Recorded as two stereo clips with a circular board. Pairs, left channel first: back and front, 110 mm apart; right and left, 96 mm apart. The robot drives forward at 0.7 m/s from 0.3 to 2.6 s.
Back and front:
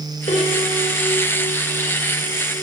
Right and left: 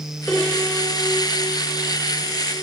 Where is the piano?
170° right, 4 m.